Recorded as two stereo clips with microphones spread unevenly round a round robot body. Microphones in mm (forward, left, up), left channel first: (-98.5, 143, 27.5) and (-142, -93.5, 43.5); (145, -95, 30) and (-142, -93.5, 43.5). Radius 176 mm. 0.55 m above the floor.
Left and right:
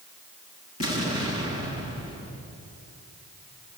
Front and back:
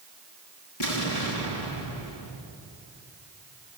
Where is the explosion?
35° left, 5.5 m.